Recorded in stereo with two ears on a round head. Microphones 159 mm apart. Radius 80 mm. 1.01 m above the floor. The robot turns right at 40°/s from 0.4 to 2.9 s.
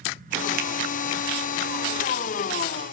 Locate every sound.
0.6 s a finger snap: 55° right (ahead or behind), 0.8 m; by 0.7 s 50° right (ahead or behind), 0.8 m